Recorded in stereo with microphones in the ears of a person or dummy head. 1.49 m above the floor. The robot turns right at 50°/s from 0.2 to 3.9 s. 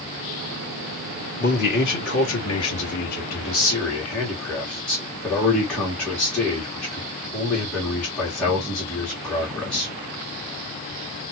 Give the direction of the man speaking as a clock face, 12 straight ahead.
10 o'clock.